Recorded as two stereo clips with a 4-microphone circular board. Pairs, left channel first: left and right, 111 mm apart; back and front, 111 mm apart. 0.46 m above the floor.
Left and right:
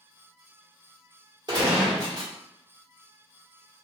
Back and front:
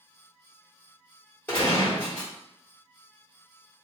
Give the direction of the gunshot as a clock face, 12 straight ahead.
4 o'clock.